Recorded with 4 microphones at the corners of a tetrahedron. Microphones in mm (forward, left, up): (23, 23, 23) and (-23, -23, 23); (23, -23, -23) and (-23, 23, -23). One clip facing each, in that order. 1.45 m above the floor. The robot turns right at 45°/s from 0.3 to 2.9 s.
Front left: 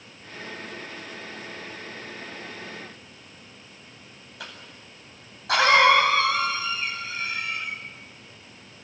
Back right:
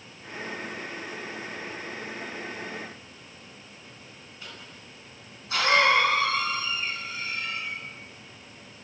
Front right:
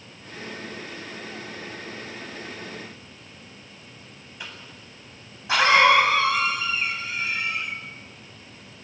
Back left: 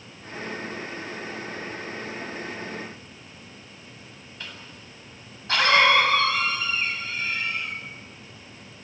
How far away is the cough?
About 8 m.